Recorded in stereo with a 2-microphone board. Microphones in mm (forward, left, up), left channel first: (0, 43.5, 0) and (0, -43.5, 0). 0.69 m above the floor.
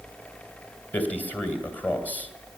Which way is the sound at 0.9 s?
20° left (ahead or behind).